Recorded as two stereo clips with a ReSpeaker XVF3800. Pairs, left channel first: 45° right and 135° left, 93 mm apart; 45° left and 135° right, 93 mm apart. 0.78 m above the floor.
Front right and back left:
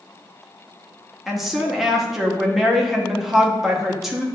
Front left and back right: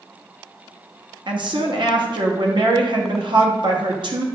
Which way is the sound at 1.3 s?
140° right.